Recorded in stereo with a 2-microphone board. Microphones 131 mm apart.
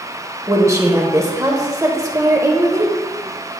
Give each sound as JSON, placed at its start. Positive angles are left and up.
{"t": 0.5, "sound": "a woman speaking", "side_deg": -25, "distance_m": 0.9}